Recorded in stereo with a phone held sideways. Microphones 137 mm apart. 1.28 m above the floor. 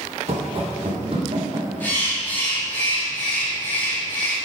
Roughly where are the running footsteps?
Right.